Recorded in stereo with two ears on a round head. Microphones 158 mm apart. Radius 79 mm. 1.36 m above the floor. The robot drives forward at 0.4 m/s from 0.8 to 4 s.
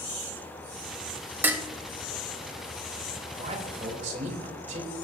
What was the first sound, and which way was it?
Dishes clattering, 10° right (ahead or behind).